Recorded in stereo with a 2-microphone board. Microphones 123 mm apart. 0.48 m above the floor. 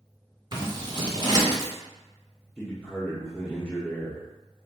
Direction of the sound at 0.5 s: 35° right (ahead or behind).